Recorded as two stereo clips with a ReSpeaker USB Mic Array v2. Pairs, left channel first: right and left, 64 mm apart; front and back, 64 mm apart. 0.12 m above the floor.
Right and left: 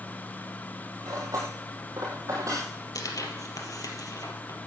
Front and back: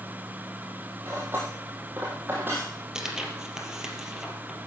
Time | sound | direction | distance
1.0 | cutlery clinking | 125° left | 7.5 m
3.0 | tearing paper | 100° right | 2.5 m